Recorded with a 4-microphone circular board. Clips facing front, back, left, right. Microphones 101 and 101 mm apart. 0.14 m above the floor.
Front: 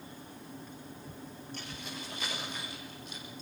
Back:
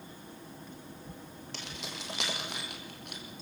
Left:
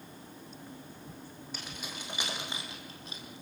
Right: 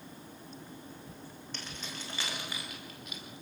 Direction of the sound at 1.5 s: 175° left.